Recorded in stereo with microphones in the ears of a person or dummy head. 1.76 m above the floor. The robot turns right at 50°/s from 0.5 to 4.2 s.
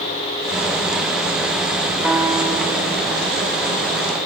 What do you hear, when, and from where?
2.0 s a piano: 175° right, 1.1 m; by 4.1 s 75° right, 1.1 m